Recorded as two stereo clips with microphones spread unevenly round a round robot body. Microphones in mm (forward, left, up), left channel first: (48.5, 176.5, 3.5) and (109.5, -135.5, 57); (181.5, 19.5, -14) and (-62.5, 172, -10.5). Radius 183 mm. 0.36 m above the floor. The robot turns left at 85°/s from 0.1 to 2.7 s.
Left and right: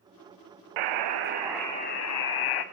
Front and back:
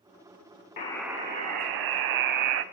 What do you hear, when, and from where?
0.8 s a buzzer: 100° right, 0.7 m; by 2.6 s 100° left, 0.7 m